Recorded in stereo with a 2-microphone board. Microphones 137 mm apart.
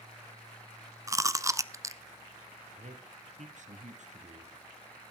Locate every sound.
1.1 s chewing: 25° right (ahead or behind), 0.8 m
2.8 s a man speaking: 60° right (ahead or behind), 3 m